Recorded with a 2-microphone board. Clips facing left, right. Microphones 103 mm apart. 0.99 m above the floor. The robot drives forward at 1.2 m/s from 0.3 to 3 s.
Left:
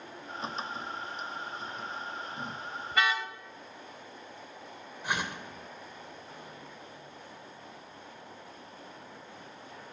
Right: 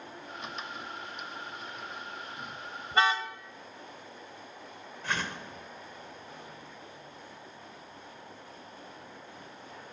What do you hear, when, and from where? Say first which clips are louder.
2.9 s a car horn: right 3 dB; 35° right (ahead or behind), 2.5 m
5.0 s a whoosh: left 1 dB; 15° left (ahead or behind), 2.5 m